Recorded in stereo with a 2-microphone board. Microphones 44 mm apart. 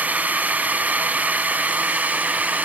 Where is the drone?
40° right (ahead or behind).